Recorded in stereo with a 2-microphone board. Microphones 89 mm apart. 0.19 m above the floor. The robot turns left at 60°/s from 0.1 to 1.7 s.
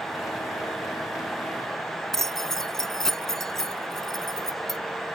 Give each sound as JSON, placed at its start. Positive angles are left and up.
{"t": 2.1, "sound": "keys jangling", "side_deg": 5}